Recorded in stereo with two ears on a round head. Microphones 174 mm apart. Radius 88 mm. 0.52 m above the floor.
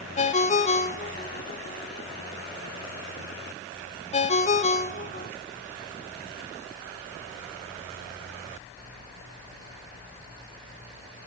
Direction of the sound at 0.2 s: 40° left (ahead or behind).